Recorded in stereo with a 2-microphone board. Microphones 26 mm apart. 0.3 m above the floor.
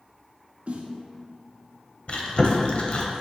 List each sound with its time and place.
0.7 s a snare drum: 55° right (ahead or behind), 0.7 m
2.1 s chewing: 45° left (ahead or behind), 0.6 m